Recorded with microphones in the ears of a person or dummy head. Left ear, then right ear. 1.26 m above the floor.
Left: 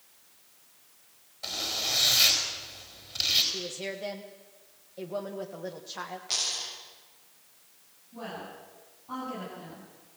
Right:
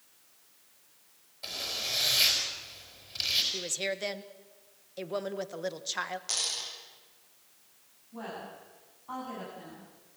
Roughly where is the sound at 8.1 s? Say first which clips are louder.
Left 1 dB; right.